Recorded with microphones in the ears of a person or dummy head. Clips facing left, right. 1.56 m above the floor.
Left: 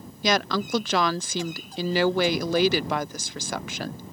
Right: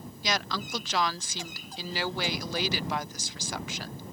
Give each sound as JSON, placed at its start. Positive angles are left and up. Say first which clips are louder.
{"t": 0.2, "sound": "a woman speaking", "louder": "left 8 dB", "side_deg": 50}